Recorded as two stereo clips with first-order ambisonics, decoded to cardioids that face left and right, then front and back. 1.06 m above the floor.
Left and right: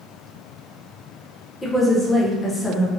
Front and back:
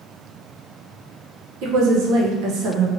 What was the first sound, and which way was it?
A woman speaking, 170° left.